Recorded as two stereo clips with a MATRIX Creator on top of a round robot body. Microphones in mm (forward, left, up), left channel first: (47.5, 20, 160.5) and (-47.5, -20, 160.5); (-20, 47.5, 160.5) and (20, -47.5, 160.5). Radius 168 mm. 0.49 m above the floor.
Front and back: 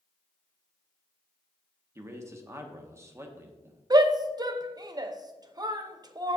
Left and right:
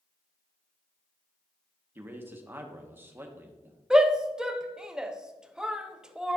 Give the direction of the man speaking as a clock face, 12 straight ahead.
4 o'clock.